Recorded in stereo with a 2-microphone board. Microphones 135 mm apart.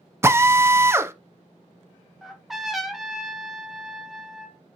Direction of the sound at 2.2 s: Centre (ahead or behind).